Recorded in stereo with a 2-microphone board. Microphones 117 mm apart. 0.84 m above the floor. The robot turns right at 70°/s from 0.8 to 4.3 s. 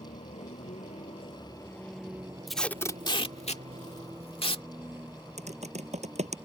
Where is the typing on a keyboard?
75° right (ahead or behind).